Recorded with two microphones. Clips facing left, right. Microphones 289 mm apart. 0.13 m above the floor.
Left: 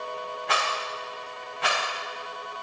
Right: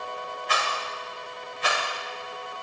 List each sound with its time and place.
0.5 s a rattle: 80° left, 3.5 m